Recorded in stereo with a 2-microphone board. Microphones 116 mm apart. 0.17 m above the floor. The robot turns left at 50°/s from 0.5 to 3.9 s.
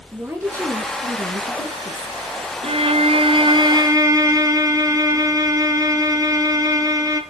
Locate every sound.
0.1 s a woman speaking: 25° right, 3 m; by 2.2 s 110° right, 3 m
2.6 s a violin: 80° right, 1.9 m; by 7.2 s 145° right, 1.9 m